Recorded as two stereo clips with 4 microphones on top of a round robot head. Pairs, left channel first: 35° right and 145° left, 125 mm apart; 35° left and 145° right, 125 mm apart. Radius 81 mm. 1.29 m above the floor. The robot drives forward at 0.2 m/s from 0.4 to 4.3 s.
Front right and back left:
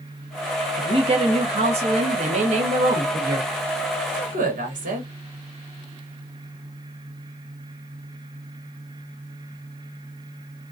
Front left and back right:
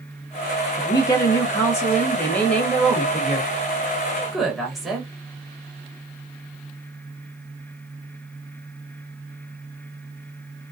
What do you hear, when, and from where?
0.8 s a woman speaking: 95° left, 1.2 m; by 5.1 s 125° left, 1.4 m